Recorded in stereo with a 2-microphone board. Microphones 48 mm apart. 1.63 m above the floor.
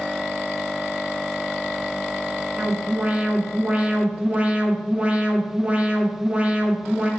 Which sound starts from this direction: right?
An alarm, at 2.6 s.